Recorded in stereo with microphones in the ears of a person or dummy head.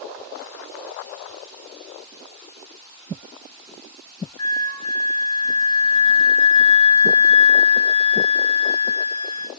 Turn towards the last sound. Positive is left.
turn(degrees=25)  # may be behind; listen again after turning